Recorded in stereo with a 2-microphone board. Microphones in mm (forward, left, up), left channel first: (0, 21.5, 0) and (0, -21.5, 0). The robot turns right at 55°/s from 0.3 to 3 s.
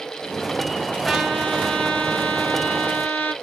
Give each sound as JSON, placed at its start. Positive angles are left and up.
{"t": 1.1, "sound": "a trumpet", "azimuth_deg": 5, "distance_m": 1.3}